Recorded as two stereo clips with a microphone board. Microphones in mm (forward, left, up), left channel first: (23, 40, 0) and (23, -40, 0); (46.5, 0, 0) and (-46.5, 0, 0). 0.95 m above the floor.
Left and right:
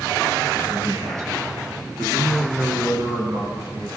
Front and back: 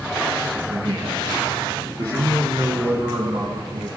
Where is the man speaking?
130° right, 9 m; by 3.9 s 140° right, 12 m.